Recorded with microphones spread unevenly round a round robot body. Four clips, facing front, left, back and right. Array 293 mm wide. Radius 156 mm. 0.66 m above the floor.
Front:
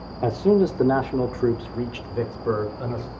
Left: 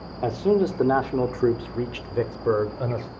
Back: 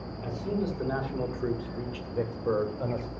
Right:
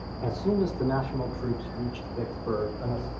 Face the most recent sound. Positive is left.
turn(degrees=85)